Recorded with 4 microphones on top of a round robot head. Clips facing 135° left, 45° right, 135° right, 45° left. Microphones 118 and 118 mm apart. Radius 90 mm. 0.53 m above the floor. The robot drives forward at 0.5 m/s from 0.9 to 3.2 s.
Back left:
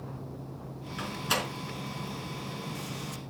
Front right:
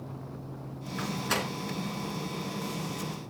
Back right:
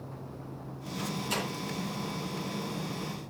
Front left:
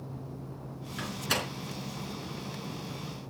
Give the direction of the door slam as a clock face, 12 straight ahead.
10 o'clock.